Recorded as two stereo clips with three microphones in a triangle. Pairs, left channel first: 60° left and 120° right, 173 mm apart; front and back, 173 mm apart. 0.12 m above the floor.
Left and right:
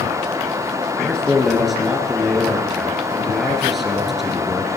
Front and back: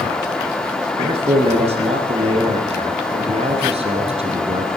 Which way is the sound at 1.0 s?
150° left.